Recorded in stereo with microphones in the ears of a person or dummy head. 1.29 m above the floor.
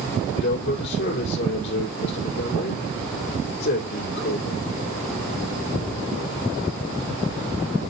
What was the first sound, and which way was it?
A man speaking, 65° left (ahead or behind).